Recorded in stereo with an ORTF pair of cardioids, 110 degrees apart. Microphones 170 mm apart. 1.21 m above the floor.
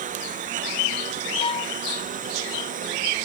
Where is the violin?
30° left.